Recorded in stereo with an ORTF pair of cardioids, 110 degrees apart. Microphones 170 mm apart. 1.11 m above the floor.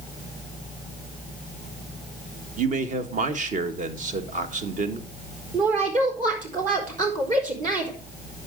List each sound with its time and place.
2.6 s a man speaking: 45° right, 1.5 m
5.5 s a woman speaking: 50° right, 4.5 m